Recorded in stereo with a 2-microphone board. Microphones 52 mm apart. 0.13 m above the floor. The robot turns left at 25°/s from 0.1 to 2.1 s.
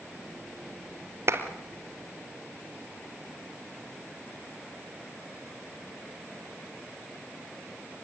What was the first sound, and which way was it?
A clap, 55° right (ahead or behind).